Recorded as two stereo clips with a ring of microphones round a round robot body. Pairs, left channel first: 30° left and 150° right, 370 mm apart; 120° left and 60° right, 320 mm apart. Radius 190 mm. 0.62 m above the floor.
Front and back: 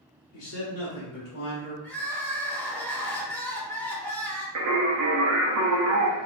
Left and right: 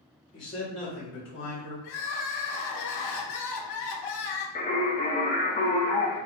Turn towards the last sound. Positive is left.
turn(degrees=180)